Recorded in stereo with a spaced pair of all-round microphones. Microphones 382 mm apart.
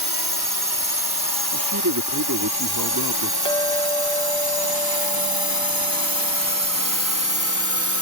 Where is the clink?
10° left (ahead or behind).